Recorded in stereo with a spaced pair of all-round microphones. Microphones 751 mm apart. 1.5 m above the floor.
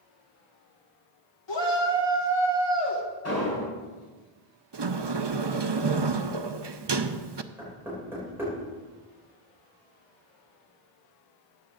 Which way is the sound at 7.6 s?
5° right (ahead or behind).